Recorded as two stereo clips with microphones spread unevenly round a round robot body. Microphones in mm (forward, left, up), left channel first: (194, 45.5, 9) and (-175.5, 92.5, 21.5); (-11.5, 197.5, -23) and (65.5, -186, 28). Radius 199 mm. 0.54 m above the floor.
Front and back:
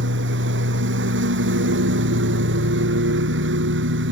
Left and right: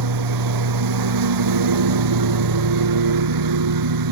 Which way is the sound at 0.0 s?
120° right.